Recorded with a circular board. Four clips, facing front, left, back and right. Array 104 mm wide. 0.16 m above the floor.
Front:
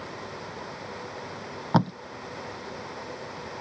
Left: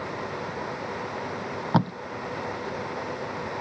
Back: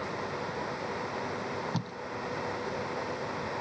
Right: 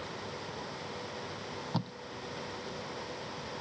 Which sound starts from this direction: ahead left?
Tape being pulled, at 1.7 s.